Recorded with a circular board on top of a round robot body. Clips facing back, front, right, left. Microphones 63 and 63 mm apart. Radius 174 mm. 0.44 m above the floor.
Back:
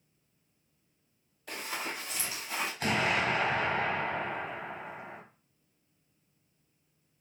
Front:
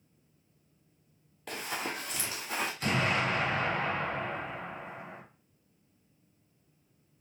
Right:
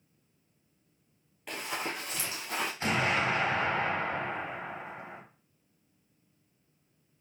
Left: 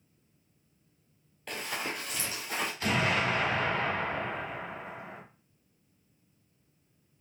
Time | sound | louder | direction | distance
1.5 | running footsteps | front 1 dB, even | 5° right | 0.7 m
2.8 | an explosion | back 1 dB, even | 150° right | 1.9 m